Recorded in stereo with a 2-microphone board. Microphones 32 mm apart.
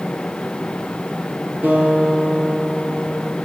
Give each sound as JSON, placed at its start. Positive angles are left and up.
{"t": 1.6, "sound": "a guitar", "side_deg": -70, "distance_m": 5.0}